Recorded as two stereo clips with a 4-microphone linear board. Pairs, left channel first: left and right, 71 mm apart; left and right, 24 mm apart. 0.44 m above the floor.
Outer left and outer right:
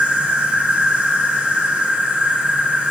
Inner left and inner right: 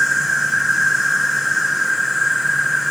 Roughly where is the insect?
Centre.